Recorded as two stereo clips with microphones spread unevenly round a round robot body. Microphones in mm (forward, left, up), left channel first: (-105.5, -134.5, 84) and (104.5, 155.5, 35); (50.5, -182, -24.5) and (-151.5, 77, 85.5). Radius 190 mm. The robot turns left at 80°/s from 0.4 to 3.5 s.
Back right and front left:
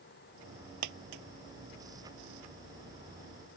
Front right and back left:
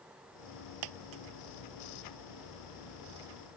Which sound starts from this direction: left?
A dropped coin, at 0.8 s.